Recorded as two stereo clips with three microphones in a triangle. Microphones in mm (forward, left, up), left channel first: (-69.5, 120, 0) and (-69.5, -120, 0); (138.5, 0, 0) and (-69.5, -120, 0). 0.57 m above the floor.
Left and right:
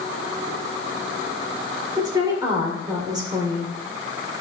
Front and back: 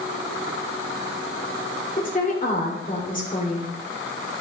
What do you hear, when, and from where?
2.0 s a woman speaking: 20° right, 2 m